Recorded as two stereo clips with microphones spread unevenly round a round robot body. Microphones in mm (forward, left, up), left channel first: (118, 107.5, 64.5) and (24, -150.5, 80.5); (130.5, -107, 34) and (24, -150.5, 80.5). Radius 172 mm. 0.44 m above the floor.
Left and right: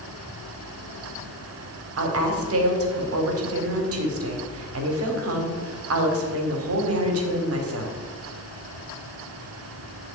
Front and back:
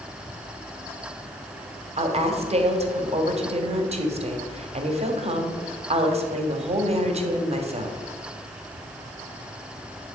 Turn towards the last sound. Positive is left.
turn(degrees=-120)